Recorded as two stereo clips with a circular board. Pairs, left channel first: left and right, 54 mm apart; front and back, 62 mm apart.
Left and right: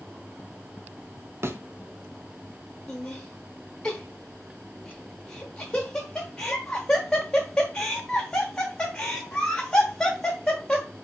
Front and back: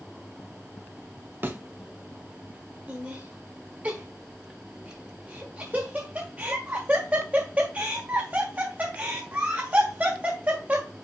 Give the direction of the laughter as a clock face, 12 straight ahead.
7 o'clock.